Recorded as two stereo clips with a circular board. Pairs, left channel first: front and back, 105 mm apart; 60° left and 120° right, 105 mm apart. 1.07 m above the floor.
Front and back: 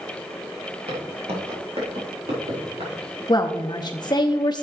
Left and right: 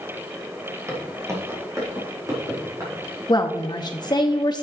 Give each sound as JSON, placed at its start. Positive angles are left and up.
{"t": 0.9, "sound": "footsteps", "azimuth_deg": 180, "distance_m": 2.5}
{"t": 3.3, "sound": "a woman speaking", "azimuth_deg": 30, "distance_m": 0.7}